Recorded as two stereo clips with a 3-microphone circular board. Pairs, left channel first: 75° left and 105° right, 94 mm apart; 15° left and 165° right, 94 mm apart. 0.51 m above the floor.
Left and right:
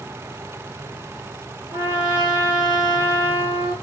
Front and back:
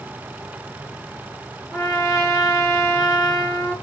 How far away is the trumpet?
About 1.3 m.